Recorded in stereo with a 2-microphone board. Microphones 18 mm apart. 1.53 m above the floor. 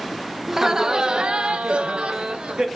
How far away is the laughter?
About 0.9 m.